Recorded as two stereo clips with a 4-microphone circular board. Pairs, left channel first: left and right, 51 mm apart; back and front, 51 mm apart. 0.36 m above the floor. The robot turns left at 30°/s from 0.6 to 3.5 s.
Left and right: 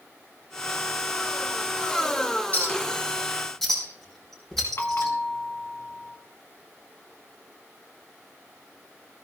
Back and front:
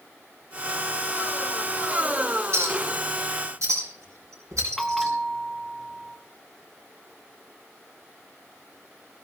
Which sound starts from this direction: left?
A bell, at 4.8 s.